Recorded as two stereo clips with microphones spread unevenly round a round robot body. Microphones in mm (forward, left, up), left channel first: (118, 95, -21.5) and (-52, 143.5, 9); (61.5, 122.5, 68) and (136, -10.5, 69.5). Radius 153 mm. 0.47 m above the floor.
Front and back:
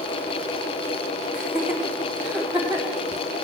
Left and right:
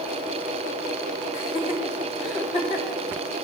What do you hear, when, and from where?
1.3 s laughter: 80° left, 3.5 m